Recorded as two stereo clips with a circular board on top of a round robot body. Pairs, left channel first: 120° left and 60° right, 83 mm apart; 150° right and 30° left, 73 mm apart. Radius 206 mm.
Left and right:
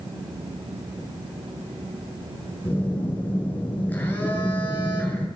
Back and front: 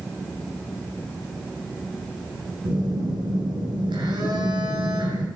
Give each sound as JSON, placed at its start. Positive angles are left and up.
{"t": 2.6, "sound": "a phone buzzing", "azimuth_deg": 50, "distance_m": 6.5}